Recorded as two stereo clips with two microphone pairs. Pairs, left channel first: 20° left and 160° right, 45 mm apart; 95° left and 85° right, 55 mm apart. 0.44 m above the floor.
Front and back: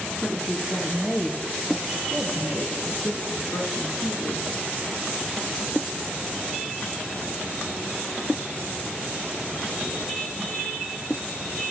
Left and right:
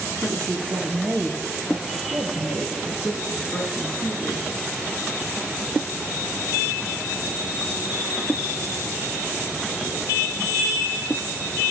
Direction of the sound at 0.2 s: 75° right.